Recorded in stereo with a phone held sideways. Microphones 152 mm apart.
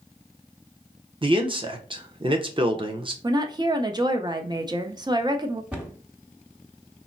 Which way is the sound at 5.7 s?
5° right (ahead or behind).